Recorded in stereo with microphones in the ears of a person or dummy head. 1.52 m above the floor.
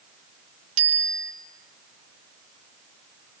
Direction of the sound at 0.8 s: 75° right (ahead or behind).